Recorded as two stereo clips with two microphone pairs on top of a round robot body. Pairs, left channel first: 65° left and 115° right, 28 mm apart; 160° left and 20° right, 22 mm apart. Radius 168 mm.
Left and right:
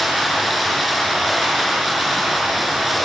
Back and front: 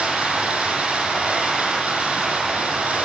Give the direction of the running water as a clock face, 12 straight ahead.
1 o'clock.